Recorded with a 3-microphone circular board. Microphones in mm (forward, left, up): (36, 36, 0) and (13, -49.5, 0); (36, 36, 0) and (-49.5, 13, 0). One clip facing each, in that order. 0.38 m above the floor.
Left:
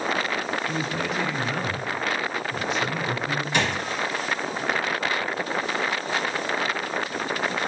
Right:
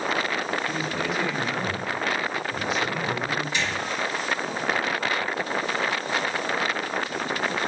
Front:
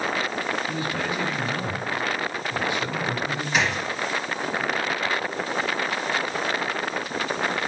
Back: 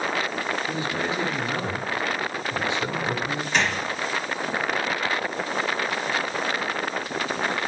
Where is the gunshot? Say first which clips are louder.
Left 3 dB, even; 100° left, 0.8 m.